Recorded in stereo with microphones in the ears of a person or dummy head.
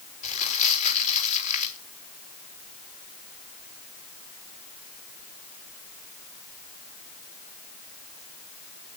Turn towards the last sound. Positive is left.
turn(degrees=40)  # may be behind; listen again after turning